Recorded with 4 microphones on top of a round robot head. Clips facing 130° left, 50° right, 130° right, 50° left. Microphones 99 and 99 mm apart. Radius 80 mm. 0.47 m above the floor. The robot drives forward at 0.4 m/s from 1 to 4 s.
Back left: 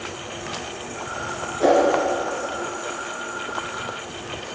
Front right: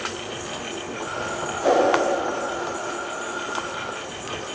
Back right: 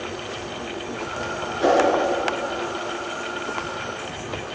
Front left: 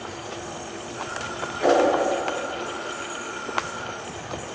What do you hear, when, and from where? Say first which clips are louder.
1.6 s a whoosh: back left 2 dB, back right 1 dB; 155° left, 4.5 m; by 1.8 s 160° left, 4.5 m